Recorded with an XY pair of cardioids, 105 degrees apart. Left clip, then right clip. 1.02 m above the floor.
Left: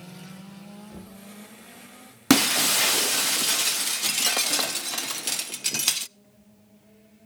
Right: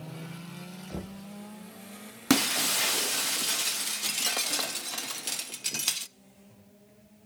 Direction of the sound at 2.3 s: 35° left.